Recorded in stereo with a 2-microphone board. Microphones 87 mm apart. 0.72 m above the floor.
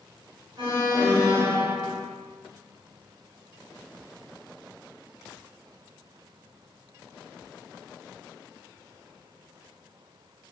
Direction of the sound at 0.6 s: 45° right (ahead or behind).